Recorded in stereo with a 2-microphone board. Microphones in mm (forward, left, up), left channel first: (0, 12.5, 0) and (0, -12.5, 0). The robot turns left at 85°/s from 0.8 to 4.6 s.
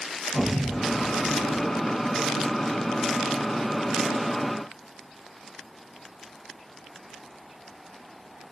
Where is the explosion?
70° left, 2.5 m; by 1.8 s 10° right, 2.5 m.